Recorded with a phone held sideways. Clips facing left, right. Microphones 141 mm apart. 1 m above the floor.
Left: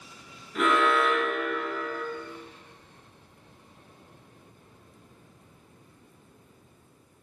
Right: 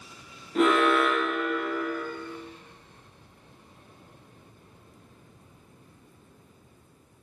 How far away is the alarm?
About 1.0 m.